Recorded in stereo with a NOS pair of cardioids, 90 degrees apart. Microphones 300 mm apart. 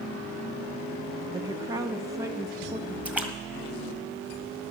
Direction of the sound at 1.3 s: 10° right.